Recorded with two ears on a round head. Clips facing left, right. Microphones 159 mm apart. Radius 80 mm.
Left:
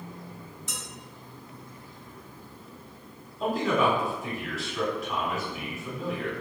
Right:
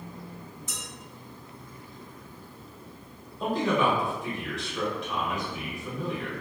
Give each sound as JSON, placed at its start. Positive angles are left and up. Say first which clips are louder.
{"t": 0.7, "sound": "dishes clattering", "louder": "left 2 dB", "side_deg": 45, "distance_m": 1.4}
{"t": 3.4, "sound": "a man speaking", "louder": "even", "side_deg": 5, "distance_m": 1.1}